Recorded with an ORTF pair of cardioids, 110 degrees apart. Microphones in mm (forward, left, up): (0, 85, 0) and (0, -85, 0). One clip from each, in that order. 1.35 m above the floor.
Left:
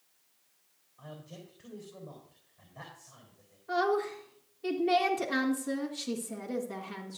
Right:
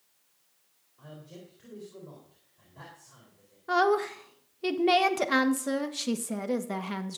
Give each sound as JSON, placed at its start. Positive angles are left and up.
{"t": 1.0, "sound": "a man speaking", "azimuth_deg": 5, "distance_m": 4.0}
{"t": 3.7, "sound": "a woman speaking", "azimuth_deg": -60, "distance_m": 1.4}